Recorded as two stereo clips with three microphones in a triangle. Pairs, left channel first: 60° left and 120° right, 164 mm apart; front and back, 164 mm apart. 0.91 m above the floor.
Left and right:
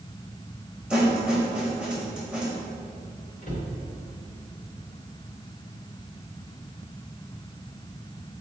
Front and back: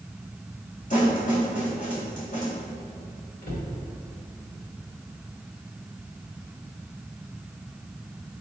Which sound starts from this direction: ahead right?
A snare drum, at 0.9 s.